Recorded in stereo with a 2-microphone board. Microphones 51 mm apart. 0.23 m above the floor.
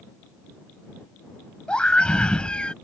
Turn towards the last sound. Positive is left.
turn(degrees=20)  # may be behind; listen again after turning